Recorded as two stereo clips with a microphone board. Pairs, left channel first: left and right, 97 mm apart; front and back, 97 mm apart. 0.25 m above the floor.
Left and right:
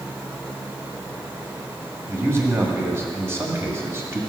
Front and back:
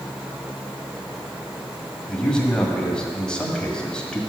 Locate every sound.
2.1 s a man speaking: 70° right, 1.6 m